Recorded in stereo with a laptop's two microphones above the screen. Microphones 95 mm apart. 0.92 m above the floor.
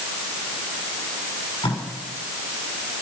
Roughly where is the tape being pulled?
Left.